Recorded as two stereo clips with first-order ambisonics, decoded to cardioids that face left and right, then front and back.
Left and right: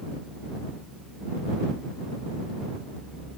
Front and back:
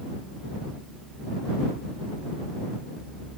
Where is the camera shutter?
No camera shutter in this recording.